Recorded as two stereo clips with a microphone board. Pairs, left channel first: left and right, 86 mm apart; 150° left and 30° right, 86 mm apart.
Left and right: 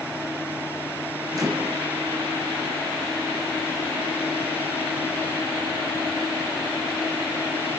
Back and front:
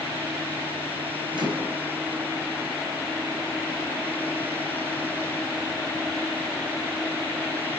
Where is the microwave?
50° right, 2.5 m.